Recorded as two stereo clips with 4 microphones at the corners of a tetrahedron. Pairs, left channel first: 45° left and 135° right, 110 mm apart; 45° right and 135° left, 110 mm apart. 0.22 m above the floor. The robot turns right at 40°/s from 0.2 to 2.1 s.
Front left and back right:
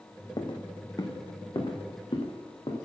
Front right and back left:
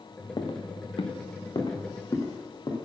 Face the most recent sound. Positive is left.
turn(degrees=5)